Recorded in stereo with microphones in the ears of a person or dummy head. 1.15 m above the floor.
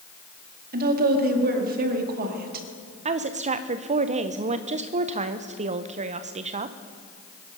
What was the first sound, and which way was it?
A woman speaking, 50° right (ahead or behind).